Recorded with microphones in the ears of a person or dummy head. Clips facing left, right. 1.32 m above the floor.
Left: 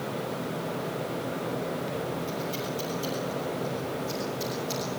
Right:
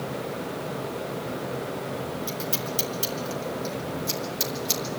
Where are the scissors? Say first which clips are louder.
Even; 75° right (ahead or behind), 6.5 m.